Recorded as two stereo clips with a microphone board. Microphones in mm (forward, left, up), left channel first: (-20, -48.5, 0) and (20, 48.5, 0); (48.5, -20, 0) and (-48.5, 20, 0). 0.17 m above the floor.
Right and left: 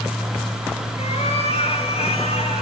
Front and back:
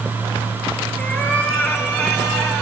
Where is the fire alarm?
I don't hear a fire alarm.